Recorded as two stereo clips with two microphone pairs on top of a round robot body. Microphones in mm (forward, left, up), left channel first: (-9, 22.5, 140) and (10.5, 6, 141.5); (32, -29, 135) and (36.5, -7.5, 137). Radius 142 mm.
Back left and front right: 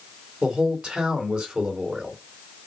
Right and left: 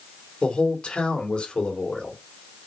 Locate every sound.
0.4 s a man speaking: 80° right, 3 m